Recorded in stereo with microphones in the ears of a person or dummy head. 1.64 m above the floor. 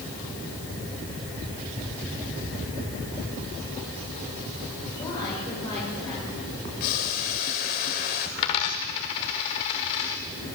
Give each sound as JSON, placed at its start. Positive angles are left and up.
{"t": 4.9, "sound": "a woman speaking", "side_deg": 20, "distance_m": 7.5}
{"t": 6.8, "sound": "boiling", "side_deg": 50, "distance_m": 3.0}
{"t": 8.4, "sound": "a dropped coin", "side_deg": 20, "distance_m": 1.4}